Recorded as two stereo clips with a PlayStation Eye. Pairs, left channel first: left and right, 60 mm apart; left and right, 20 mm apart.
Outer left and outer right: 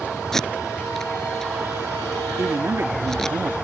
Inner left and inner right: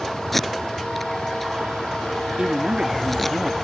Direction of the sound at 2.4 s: 50° right (ahead or behind).